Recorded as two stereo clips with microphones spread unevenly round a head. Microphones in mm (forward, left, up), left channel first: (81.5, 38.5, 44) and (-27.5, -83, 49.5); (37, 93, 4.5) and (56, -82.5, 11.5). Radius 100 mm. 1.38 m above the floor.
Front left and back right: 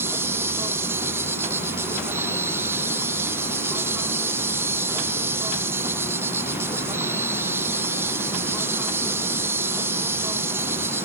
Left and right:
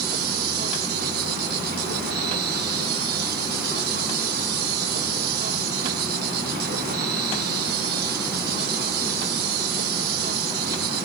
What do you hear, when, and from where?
0.0 s an insect: 55° right